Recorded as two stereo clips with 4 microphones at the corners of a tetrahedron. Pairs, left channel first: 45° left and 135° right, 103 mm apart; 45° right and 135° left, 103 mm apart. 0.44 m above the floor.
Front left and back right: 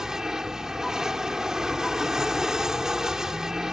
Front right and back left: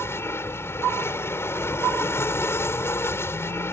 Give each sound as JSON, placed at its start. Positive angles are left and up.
{"t": 0.0, "sound": "an aircraft", "azimuth_deg": -60}